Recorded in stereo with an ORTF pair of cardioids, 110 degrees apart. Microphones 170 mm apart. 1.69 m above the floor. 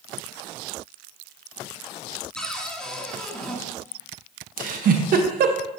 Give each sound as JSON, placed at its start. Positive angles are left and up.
{"t": 2.4, "sound": "a cupboard door", "azimuth_deg": 5, "distance_m": 3.0}
{"t": 4.6, "sound": "a giggle", "azimuth_deg": -60, "distance_m": 1.4}